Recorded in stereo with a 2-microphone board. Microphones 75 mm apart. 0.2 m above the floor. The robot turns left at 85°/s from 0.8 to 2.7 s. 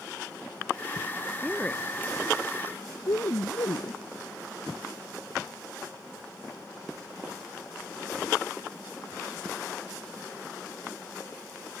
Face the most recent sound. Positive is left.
turn(degrees=65)  # may be behind; listen again after turning